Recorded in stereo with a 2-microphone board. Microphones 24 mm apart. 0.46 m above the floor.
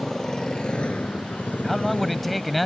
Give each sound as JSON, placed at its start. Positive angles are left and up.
{"t": 0.0, "sound": "a motorcycle", "side_deg": 15}
{"t": 1.6, "sound": "a man speaking", "side_deg": 5}